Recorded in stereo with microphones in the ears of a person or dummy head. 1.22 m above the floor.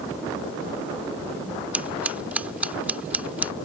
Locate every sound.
1.7 s scissors: 5° right (ahead or behind)